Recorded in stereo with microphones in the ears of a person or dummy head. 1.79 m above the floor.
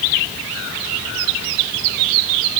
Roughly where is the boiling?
I don't hear boiling.